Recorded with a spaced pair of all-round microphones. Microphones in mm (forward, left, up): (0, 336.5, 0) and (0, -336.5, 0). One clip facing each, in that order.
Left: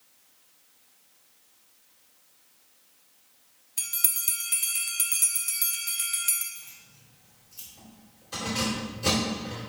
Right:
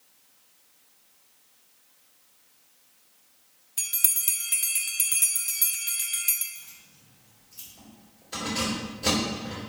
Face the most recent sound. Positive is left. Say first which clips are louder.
# right 1 dB
turn(degrees=35)  # may be behind; listen again after turning